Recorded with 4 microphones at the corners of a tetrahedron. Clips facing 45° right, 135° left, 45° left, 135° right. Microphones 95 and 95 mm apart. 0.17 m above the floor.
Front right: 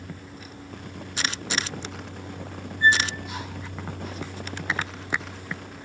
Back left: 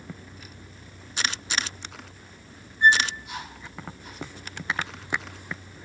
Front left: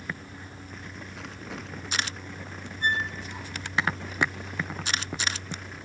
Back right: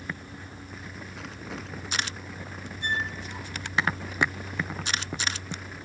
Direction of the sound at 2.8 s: 70° left.